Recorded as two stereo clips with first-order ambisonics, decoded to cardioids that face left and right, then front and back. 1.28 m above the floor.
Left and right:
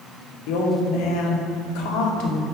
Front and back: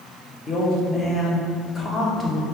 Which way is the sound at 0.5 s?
70° left.